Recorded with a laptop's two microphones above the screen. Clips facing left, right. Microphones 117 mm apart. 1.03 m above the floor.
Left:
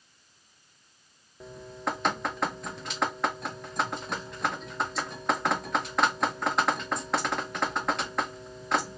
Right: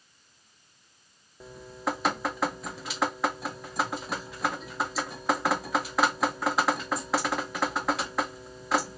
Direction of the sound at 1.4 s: 5° right (ahead or behind).